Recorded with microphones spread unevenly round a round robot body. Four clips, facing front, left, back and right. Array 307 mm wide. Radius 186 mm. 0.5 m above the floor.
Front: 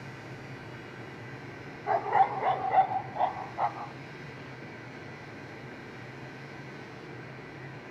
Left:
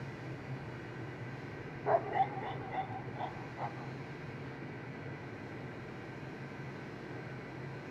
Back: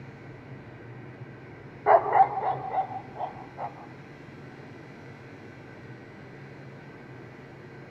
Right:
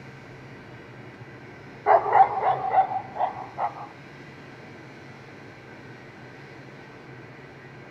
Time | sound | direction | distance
1.9 | a dog barking | 105° right | ?